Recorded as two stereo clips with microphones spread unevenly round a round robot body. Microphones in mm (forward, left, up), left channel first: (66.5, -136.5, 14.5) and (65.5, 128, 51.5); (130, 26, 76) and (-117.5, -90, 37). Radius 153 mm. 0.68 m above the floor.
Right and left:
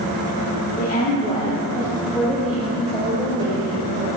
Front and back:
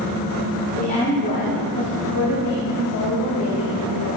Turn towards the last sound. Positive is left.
turn(degrees=20)